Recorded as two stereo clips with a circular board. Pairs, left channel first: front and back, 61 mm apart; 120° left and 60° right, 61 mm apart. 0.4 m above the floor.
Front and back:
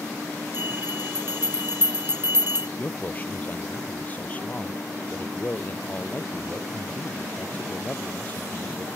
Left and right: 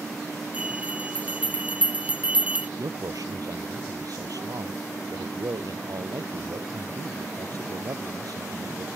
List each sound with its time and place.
0.5 s a bell: 130° right
2.8 s a man speaking: 60° right